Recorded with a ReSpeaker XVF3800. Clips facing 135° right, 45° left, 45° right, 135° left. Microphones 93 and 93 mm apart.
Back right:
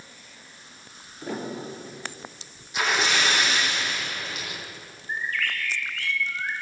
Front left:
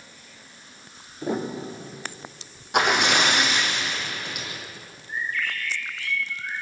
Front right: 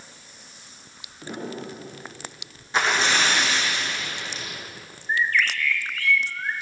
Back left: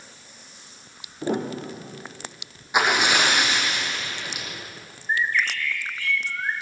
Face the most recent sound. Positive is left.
turn(degrees=-155)